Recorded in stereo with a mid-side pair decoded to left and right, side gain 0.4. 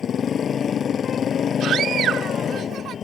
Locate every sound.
0.0 s a motorcycle: 55° left
1.6 s a scream: 70° right